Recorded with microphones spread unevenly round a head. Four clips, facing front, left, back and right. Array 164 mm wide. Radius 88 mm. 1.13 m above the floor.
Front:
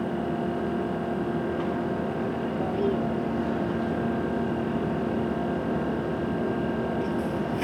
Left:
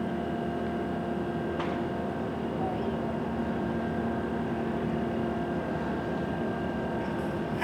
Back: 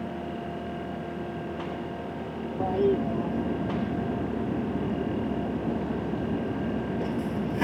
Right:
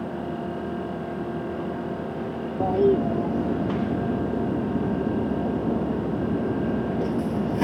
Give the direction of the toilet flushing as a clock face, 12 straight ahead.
4 o'clock.